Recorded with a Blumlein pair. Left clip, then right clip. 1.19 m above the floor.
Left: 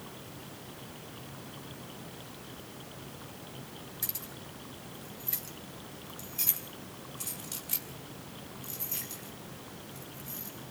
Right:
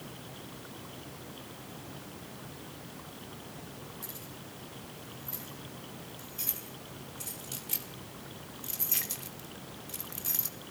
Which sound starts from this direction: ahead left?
Keys jangling, at 4.0 s.